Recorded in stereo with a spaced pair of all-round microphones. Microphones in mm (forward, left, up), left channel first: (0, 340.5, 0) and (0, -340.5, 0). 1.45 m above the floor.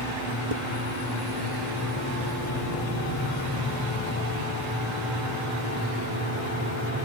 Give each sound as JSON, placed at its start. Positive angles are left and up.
{"t": 0.5, "sound": "dishes clattering", "side_deg": -55}